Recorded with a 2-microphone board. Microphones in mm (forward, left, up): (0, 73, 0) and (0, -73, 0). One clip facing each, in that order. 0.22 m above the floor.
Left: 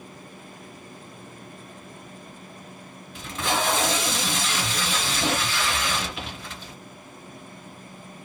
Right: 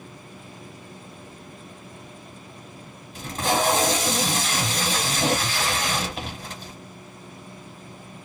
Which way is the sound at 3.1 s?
40° right (ahead or behind).